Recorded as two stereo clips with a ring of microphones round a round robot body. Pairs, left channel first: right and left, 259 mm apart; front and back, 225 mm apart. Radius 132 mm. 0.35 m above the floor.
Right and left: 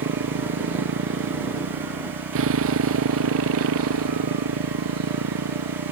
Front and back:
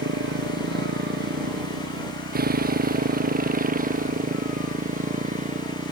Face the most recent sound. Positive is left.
turn(degrees=120)